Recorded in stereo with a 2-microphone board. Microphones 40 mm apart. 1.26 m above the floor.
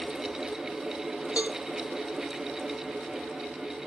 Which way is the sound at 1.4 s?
30° right (ahead or behind).